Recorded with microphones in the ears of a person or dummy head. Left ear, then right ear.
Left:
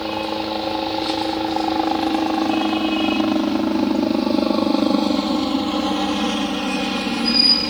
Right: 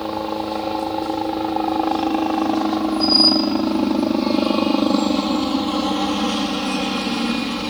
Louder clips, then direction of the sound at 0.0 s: Left 1 dB; 5° left (ahead or behind).